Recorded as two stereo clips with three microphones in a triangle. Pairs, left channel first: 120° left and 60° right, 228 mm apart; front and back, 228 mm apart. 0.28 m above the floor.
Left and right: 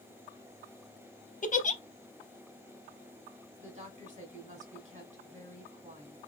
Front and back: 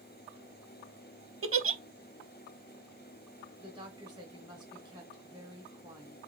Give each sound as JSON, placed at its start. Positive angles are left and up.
{"t": 1.4, "sound": "a giggle", "azimuth_deg": 175, "distance_m": 0.5}
{"t": 3.6, "sound": "a woman speaking", "azimuth_deg": -115, "distance_m": 2.0}